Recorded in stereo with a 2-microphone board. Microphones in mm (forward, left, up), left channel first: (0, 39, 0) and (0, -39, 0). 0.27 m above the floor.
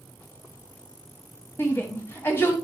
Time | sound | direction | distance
1.6 | a shout | 30° left (ahead or behind) | 1.8 m